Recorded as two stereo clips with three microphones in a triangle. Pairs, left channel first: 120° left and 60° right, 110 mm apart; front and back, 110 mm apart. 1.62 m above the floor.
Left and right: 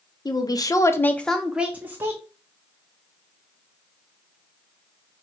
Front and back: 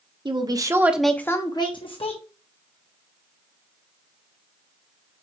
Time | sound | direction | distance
0.2 | a woman speaking | 160° left | 0.8 m